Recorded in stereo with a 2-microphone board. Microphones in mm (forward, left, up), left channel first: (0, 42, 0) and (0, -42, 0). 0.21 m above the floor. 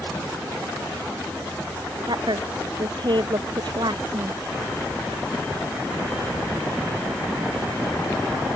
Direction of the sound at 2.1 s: 65° right (ahead or behind).